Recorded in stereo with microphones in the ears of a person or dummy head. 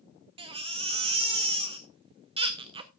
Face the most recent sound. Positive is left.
turn(degrees=-30)  # may be behind; listen again after turning